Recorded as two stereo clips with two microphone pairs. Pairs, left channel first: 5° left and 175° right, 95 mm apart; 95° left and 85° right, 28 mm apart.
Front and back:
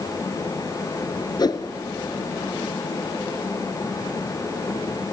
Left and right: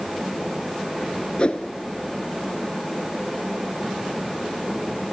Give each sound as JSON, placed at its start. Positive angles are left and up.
{"t": 1.4, "sound": "a whoosh", "azimuth_deg": 50, "distance_m": 1.2}